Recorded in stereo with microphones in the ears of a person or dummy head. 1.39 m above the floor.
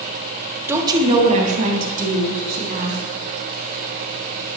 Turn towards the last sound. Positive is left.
turn(degrees=-55)  # may be behind; listen again after turning